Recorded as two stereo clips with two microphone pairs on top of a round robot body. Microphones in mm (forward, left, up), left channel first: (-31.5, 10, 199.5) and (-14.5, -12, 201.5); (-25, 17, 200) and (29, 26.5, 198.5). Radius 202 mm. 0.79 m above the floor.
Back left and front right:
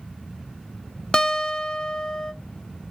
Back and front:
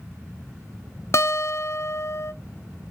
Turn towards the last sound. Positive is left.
turn(degrees=180)